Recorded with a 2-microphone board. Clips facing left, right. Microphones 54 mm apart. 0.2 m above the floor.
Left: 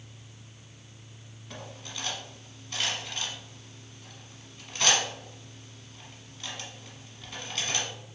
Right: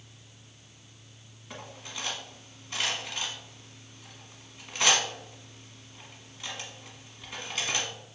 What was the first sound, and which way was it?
Cutlery clinking, 10° right (ahead or behind).